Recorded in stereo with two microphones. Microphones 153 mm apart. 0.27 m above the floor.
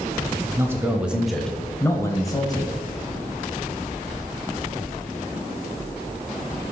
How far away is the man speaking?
About 1.1 m.